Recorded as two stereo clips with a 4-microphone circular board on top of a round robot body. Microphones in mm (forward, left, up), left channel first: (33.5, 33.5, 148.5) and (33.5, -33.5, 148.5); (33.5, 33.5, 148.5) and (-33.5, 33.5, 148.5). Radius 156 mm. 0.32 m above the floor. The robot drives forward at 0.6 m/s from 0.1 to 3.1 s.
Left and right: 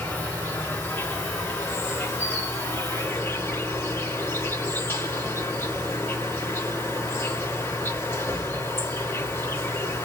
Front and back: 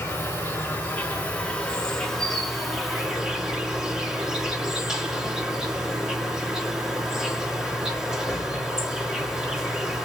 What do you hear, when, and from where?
0.0 s an insect: 35° left, 2.5 m; by 10.1 s 105° left, 2 m